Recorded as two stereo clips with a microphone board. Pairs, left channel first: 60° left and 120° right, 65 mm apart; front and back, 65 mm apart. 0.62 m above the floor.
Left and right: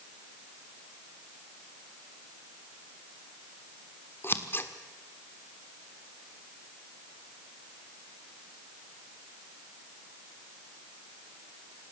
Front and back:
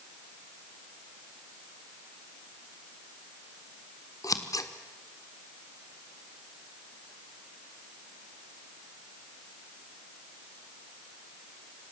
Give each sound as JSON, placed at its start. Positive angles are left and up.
{"t": 4.2, "sound": "scissors", "azimuth_deg": 10, "distance_m": 1.4}